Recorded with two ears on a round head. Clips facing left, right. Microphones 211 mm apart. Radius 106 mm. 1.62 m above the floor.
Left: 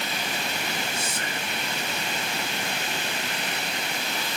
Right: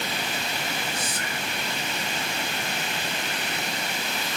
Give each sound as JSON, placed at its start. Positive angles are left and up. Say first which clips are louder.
{"t": 0.9, "sound": "whispering", "louder": "even", "side_deg": 25, "distance_m": 0.5}